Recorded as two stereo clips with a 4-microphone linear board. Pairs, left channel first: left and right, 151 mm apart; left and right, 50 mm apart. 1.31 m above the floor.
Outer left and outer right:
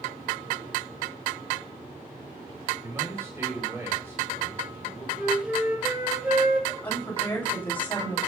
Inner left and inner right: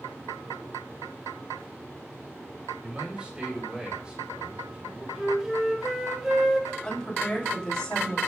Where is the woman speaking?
10° left (ahead or behind), 8 m.